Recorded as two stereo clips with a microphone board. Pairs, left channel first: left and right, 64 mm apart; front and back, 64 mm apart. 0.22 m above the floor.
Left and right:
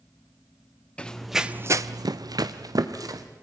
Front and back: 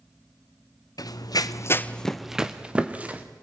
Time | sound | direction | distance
1.0 | running footsteps | 15° left | 1.0 m